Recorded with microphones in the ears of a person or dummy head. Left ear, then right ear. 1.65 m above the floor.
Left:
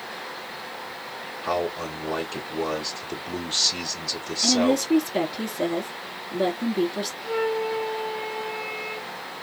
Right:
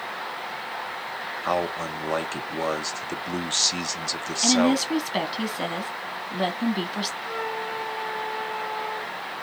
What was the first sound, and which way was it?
A man speaking, 45° right (ahead or behind).